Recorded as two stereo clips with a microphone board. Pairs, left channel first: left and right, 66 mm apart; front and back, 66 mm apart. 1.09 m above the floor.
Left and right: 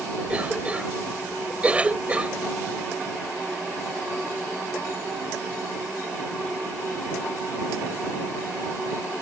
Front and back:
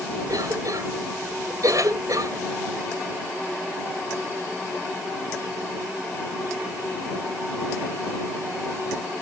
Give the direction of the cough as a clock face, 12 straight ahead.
5 o'clock.